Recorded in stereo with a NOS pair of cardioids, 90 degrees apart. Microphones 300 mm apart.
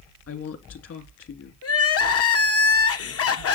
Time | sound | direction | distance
0.3 | a woman speaking | 55° left | 2.5 m
1.6 | crying | 50° left | 1.2 m